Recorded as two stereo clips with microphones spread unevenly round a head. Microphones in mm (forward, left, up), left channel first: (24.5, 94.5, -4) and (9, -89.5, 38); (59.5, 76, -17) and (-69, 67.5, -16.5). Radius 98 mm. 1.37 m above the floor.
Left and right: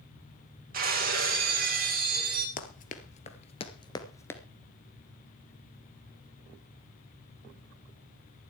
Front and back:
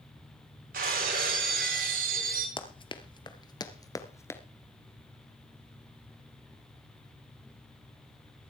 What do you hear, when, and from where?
0.7 s breaking glass: 140° right, 2.5 m
2.6 s running footsteps: 40° left, 1.9 m; by 4.4 s 15° right, 1.3 m